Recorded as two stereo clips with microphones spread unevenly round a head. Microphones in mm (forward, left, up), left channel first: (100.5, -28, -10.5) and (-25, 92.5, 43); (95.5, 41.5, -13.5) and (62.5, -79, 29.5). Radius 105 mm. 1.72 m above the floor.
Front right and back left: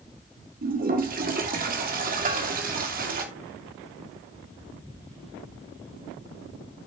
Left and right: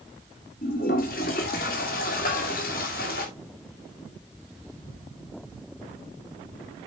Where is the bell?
100° left, 5 m.